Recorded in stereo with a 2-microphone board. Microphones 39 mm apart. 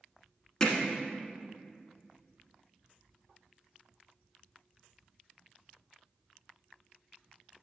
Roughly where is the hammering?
Centre.